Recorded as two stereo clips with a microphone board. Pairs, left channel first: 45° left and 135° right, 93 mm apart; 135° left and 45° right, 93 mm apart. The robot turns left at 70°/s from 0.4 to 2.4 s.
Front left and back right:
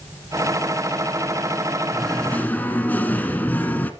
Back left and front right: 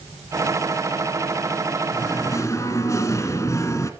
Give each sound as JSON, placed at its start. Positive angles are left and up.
{"t": 1.9, "sound": "singing", "azimuth_deg": 140, "distance_m": 1.1}